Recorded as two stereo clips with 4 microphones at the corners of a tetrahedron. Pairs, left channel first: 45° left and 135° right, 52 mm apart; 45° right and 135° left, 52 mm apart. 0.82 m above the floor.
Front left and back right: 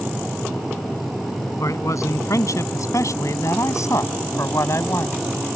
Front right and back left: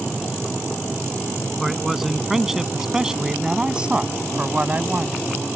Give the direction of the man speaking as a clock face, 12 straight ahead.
10 o'clock.